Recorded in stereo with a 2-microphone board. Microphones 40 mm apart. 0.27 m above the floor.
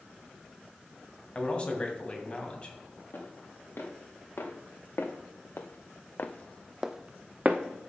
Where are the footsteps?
75° left (ahead or behind), 3 m; by 7.9 s 50° right (ahead or behind), 1.3 m.